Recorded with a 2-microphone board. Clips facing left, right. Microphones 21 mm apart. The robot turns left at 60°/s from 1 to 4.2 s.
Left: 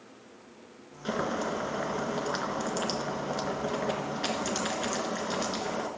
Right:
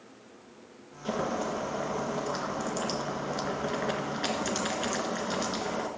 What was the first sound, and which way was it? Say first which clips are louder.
Boiling: even; 130° left.